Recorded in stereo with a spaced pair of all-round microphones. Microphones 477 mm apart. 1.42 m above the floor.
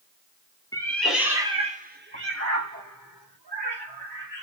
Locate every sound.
0.7 s a cat meowing: 5° left (ahead or behind), 1.5 m; by 4.4 s 60° right (ahead or behind), 2.0 m